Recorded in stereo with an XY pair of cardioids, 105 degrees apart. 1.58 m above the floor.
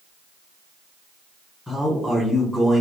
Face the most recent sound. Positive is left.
turn(degrees=5)